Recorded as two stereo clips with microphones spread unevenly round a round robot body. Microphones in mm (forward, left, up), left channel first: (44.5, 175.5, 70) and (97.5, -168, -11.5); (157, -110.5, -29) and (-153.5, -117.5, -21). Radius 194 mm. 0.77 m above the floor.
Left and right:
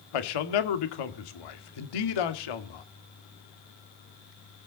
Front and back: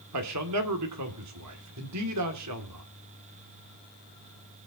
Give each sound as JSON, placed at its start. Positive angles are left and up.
{"t": 0.1, "sound": "a man speaking", "azimuth_deg": 130, "distance_m": 2.0}